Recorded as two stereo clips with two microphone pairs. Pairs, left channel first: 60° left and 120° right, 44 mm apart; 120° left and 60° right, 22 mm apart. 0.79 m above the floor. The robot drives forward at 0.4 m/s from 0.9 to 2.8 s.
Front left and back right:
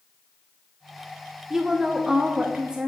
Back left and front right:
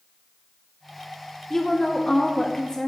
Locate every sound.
1.5 s a woman speaking: straight behind, 0.5 m